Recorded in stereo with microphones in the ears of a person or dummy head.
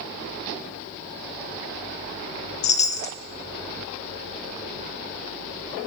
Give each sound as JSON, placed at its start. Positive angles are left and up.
{"t": 2.6, "sound": "a chime", "side_deg": 35, "distance_m": 0.6}